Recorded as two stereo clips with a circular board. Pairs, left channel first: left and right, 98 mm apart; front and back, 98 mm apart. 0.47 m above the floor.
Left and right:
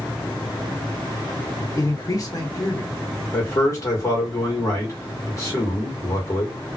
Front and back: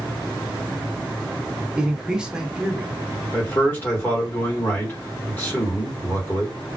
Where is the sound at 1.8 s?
105° left, 1.0 m.